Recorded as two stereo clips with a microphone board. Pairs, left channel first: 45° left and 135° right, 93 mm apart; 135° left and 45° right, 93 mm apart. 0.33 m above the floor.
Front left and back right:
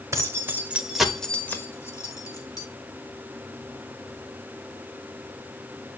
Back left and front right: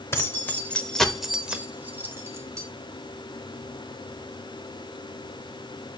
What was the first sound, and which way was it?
Keys jangling, 175° right.